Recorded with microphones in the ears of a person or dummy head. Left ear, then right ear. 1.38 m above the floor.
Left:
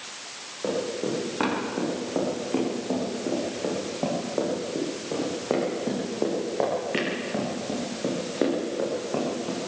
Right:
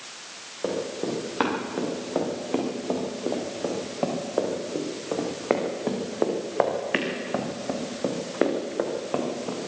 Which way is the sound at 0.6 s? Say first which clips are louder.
Left 1 dB; 80° right.